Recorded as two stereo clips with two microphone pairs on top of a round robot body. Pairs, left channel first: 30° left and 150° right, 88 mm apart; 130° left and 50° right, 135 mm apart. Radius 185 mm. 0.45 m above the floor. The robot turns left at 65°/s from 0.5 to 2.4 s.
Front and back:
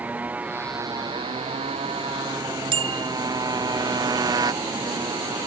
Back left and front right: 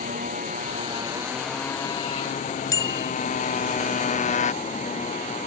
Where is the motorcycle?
80° right; by 5.5 s 165° left.